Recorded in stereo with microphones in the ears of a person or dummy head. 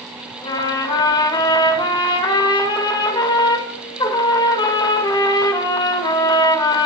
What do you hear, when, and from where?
0.4 s a trumpet: 20° left (ahead or behind), 2 m